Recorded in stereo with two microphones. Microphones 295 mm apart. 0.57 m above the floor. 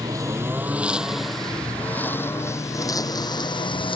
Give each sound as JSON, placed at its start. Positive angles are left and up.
{"t": 0.0, "sound": "a lawn mower", "side_deg": -15}